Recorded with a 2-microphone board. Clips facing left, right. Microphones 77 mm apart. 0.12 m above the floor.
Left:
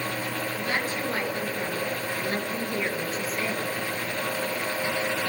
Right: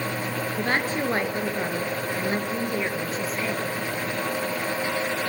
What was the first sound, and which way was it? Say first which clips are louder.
A woman speaking: right 6 dB; 45° right (ahead or behind).